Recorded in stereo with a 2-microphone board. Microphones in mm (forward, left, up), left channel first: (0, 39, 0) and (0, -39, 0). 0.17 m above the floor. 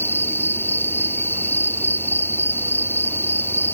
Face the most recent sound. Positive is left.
turn(degrees=30)  # may be behind; listen again after turning